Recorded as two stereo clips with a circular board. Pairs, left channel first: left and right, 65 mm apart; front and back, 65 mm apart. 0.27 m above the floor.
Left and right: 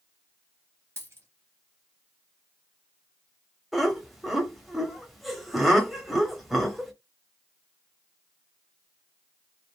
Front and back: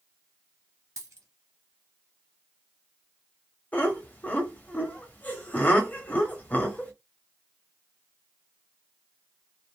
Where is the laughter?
5° right, 0.9 m.